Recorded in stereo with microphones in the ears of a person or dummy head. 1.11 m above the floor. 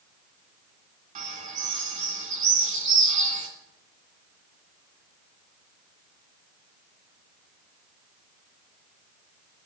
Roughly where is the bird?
Right.